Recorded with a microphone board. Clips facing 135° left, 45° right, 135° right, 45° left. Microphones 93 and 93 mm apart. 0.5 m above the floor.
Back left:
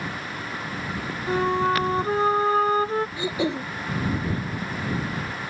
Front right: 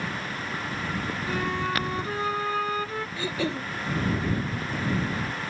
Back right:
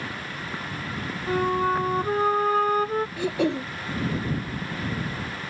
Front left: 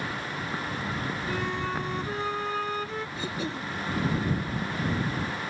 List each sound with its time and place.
1.3 s a flute: 175° right
3.2 s throat clearing: 155° right